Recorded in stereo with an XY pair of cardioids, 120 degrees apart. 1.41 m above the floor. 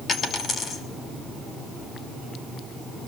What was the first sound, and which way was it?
A dropped coin, 40° left.